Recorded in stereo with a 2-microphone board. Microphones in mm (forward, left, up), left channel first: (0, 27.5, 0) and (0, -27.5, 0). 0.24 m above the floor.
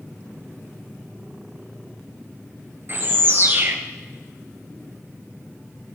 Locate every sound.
2.9 s a bird: 45° right (ahead or behind), 1.8 m